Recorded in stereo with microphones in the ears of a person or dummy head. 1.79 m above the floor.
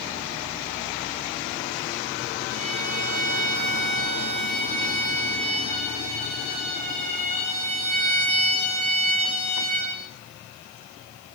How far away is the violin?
About 6.5 m.